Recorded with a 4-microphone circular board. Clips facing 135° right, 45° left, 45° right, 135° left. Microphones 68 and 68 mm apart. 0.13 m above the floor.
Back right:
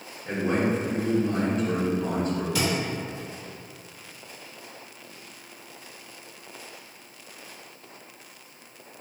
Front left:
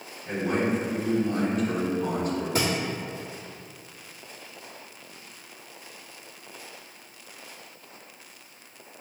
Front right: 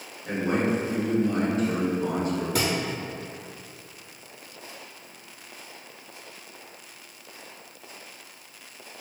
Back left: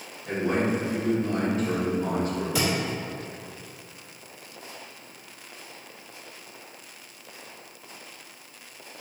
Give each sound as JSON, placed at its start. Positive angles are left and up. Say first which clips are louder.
{"t": 0.2, "sound": "a man speaking", "louder": "back right 1 dB, even", "azimuth_deg": -95, "distance_m": 1.7}
{"t": 2.5, "sound": "a thud", "louder": "front left 1 dB, back left 2 dB", "azimuth_deg": -5, "distance_m": 1.1}